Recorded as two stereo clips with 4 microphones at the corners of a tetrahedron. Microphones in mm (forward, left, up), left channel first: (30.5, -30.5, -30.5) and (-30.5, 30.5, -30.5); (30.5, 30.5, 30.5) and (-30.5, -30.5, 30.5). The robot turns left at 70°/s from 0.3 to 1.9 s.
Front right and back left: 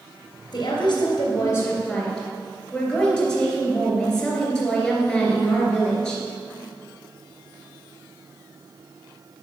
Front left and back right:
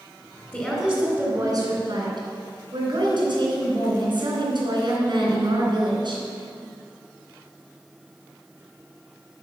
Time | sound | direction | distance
0.5 | a woman speaking | 30° right | 3 m